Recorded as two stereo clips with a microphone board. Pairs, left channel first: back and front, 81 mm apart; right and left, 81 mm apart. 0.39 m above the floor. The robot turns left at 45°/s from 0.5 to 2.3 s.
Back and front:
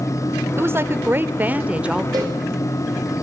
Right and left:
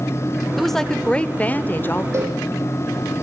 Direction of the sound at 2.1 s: 35° left.